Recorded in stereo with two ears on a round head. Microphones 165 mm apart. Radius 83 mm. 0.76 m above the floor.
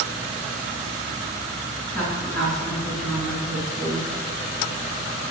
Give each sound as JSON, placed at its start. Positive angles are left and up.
{"t": 1.9, "sound": "a woman speaking", "side_deg": 5, "distance_m": 8.5}